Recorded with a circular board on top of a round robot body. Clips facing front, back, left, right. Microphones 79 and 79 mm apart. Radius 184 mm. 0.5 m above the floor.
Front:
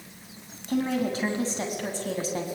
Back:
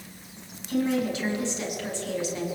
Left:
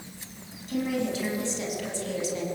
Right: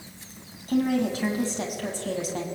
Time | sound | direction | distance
0.7 | a woman speaking | 50° right | 5.5 m